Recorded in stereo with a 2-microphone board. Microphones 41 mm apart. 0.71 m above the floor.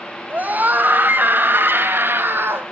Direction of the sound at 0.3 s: 40° right (ahead or behind).